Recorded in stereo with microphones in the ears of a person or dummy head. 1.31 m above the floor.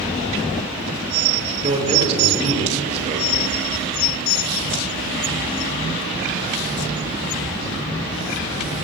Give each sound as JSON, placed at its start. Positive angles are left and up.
{"t": 1.6, "sound": "a man speaking", "side_deg": -40, "distance_m": 5.5}